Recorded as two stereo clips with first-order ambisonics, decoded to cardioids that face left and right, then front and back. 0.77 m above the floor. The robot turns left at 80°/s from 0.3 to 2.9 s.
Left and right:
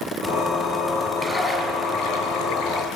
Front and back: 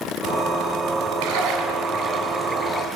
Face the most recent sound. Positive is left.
turn(degrees=50)